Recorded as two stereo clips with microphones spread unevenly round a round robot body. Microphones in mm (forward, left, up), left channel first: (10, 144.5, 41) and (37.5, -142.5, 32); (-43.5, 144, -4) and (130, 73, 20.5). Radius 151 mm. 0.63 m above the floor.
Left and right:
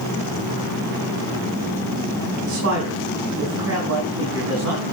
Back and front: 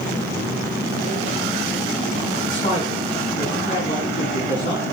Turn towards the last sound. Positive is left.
turn(degrees=-130)